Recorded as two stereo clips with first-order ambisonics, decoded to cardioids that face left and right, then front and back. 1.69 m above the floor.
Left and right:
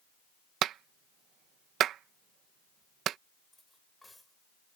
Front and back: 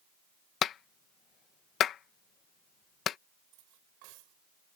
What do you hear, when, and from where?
0.6 s a clap: 50° right
3.5 s cutlery clinking: 175° left